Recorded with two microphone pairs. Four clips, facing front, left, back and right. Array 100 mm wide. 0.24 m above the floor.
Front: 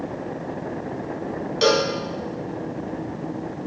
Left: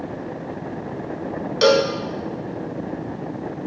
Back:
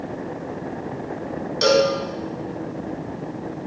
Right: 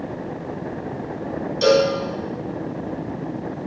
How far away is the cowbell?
About 0.7 m.